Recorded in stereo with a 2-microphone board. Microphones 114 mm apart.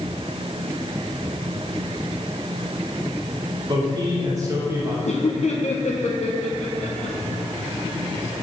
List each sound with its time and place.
3.7 s a man speaking: 40° right (ahead or behind), 3 m; by 5.0 s 20° right (ahead or behind), 3 m
5.0 s laughter: 70° left (ahead or behind), 1.0 m